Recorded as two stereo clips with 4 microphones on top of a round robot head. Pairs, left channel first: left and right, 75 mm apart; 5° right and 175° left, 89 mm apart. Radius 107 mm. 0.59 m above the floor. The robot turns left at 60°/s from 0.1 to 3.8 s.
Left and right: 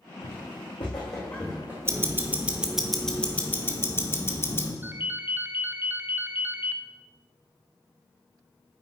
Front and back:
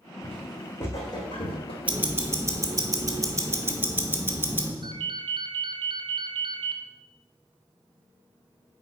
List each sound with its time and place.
0.2 s footsteps: 105° left, 2.5 m; by 2.8 s 135° right, 1.3 m
1.9 s ticking: 115° right, 1.3 m; by 4.7 s 125° left, 1.3 m
4.8 s a ringtone: 155° right, 0.7 m